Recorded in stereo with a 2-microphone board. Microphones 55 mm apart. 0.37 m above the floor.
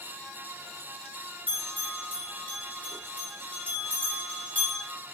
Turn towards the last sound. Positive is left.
turn(degrees=30)  # may be behind; listen again after turning